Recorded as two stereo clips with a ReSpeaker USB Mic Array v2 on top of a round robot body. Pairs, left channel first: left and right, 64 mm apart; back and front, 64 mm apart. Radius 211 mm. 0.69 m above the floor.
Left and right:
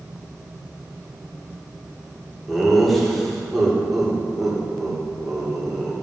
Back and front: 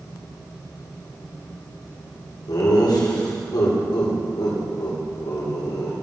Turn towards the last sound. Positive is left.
turn(degrees=180)